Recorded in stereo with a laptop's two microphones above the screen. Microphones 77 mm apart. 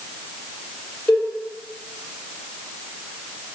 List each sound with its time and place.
1.1 s a cowbell: 20° left (ahead or behind), 2.5 m